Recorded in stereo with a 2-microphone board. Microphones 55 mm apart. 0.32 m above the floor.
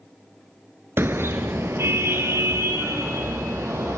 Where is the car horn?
45° right (ahead or behind), 2 m; by 4.0 s 60° right (ahead or behind), 5 m.